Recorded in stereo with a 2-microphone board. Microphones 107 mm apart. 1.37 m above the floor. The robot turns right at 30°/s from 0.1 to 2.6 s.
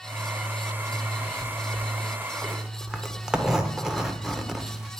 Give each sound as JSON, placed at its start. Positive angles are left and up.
{"t": 0.9, "sound": "a zipper", "azimuth_deg": 140, "distance_m": 0.6}